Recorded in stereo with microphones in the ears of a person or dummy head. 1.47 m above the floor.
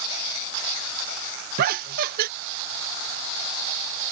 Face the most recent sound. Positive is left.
turn(degrees=-50)  # may be behind; listen again after turning